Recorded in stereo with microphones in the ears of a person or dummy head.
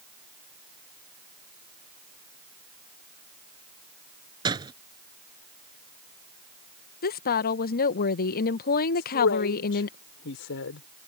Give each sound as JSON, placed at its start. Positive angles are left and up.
{"t": 4.5, "sound": "a door slam", "side_deg": -25}
{"t": 7.0, "sound": "a woman speaking", "side_deg": 50}
{"t": 8.9, "sound": "a man speaking", "side_deg": 65}